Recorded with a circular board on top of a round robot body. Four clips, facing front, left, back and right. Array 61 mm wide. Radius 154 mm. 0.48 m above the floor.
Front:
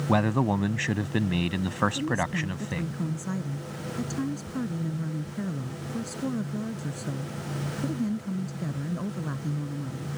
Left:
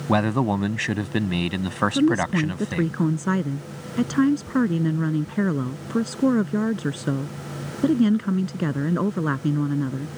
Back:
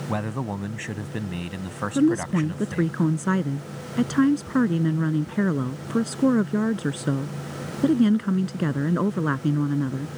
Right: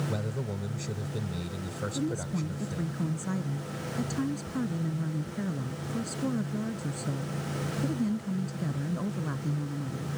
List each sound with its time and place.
0.1 s a man speaking: 75° left
1.9 s a woman speaking: 135° left